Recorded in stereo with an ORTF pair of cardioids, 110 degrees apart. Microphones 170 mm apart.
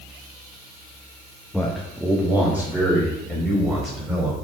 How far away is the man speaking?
About 1.0 m.